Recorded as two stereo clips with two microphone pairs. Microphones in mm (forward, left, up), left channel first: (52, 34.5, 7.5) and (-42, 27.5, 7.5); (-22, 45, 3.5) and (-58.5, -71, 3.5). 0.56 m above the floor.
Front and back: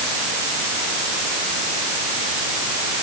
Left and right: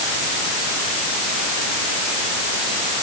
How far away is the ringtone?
I don't hear a ringtone.